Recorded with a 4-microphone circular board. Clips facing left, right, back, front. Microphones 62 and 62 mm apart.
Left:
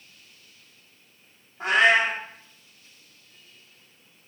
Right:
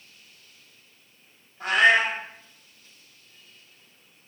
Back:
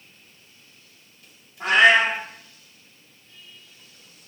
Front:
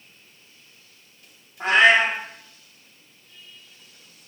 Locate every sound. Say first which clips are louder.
1.6 s a cat meowing: even, even; 45° left, 1.1 m